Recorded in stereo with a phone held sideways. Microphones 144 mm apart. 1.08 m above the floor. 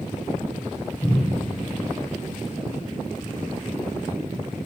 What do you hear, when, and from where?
1.0 s a cupboard door: 35° left (ahead or behind), 1.1 m